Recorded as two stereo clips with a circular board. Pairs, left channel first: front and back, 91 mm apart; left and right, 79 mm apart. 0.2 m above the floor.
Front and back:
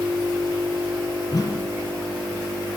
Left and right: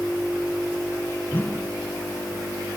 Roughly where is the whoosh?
Ahead left.